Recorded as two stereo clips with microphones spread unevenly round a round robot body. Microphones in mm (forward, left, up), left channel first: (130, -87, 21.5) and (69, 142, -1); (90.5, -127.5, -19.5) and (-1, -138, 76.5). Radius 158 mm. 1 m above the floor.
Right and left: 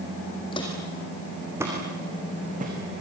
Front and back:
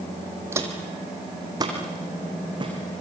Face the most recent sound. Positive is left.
turn(degrees=170)